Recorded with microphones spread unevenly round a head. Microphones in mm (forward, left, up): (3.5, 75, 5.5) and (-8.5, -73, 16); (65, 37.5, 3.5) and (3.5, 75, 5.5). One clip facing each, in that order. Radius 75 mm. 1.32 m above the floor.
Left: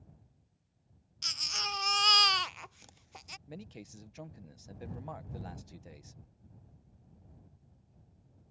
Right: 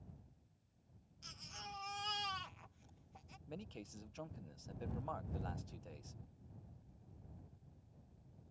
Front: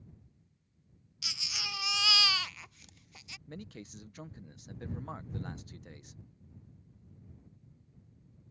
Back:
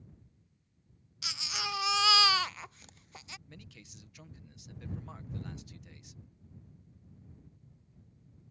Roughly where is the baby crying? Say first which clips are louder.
Left 10 dB, back 5 dB; left.